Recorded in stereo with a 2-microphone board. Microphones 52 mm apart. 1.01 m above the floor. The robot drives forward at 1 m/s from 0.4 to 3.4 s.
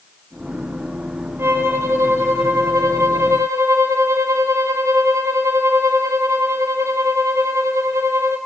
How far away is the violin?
About 3 m.